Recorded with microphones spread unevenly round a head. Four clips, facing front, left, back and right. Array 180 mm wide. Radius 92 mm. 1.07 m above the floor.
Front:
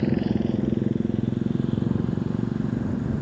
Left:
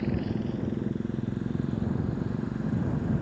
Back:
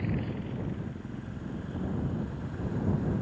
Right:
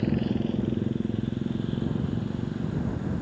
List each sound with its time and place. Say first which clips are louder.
0.0 s a motorcycle: right 4 dB, front 11 dB; 15° right; by 3.2 s straight ahead